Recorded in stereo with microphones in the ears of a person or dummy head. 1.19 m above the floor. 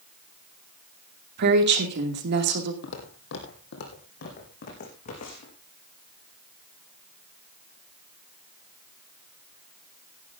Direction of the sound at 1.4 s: 60° right (ahead or behind).